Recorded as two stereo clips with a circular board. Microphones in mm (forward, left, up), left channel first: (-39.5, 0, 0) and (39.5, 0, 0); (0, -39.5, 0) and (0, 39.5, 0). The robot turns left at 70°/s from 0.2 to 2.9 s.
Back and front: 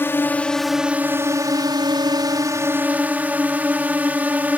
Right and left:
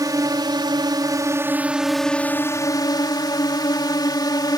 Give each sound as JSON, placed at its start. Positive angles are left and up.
{"t": 0.0, "sound": "a drone", "azimuth_deg": 120}